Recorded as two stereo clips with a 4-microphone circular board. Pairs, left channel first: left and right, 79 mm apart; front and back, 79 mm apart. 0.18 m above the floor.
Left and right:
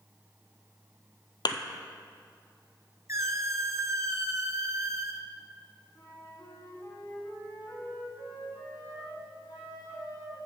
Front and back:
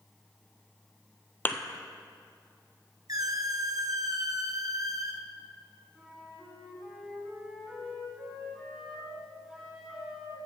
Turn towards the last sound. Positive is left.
turn(degrees=100)